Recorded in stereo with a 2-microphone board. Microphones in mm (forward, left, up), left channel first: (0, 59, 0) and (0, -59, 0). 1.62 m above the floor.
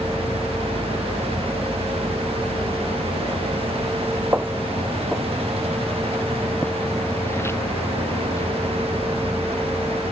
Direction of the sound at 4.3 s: 20° right (ahead or behind).